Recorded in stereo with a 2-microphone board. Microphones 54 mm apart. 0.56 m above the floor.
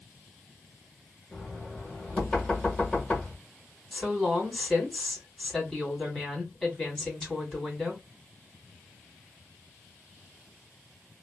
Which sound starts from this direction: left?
Knocking, at 1.3 s.